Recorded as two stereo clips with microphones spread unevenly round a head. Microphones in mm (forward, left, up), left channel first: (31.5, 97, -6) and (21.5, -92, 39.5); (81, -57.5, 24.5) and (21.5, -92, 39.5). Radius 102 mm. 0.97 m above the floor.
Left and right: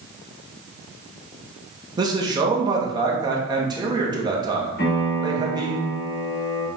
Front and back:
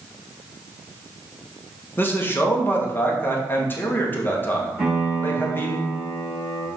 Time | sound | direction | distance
2.0 | a man speaking | 20° right | 1.6 m
4.8 | a piano | 110° left | 3 m